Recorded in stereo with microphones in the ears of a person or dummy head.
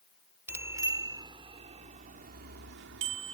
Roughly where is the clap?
I don't hear a clap.